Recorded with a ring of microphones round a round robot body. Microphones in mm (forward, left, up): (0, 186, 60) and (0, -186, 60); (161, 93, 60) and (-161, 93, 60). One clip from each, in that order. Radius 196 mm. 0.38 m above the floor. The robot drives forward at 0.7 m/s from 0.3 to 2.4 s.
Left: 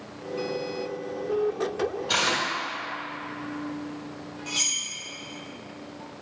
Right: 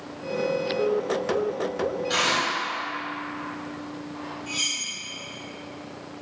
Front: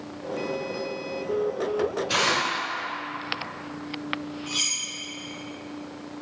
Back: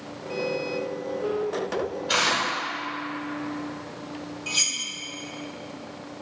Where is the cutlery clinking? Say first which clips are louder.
Even, back 2 dB; 160° left, 1.2 m.